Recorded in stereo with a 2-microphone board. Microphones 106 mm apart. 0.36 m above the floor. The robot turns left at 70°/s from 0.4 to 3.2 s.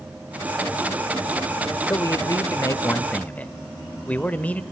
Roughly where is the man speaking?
Behind left.